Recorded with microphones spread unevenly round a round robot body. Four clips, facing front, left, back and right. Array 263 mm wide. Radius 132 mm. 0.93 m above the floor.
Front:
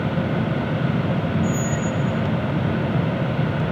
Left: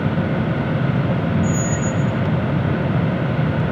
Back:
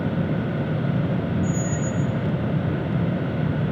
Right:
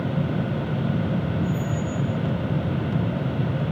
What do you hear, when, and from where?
1.4 s a squeak: 70° left, 1.1 m